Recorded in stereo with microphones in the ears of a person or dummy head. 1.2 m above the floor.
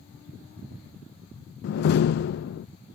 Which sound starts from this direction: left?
A door slam, at 1.6 s.